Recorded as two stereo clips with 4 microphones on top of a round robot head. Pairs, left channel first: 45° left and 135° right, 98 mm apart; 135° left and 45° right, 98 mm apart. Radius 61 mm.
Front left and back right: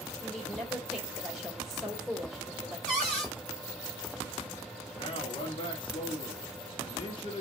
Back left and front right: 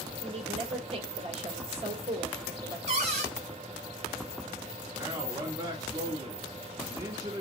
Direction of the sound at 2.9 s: 40° right.